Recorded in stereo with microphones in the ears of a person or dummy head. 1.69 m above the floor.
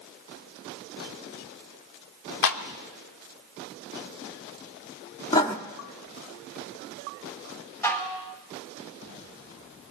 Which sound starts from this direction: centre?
Dishes clattering, at 7.8 s.